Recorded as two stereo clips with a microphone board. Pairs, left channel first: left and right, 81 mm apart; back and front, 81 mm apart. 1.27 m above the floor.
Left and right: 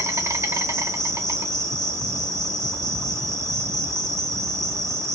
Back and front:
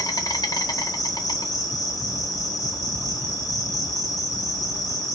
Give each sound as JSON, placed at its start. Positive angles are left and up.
{"t": 0.0, "sound": "an insect", "azimuth_deg": -140, "distance_m": 0.8}